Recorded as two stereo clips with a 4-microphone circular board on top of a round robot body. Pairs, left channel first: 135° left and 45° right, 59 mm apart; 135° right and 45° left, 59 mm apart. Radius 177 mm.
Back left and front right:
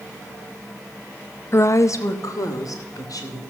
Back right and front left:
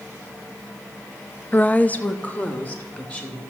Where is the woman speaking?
165° left, 0.7 m; by 3.4 s 160° left, 2.5 m.